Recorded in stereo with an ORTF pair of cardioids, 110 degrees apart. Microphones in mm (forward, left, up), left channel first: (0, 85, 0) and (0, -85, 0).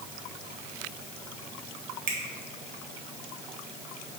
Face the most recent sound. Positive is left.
turn(degrees=-60)